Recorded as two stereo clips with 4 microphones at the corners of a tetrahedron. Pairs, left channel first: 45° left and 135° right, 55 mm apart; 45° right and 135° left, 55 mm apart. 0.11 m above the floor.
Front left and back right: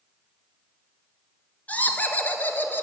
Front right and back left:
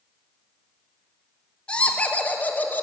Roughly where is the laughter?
Ahead.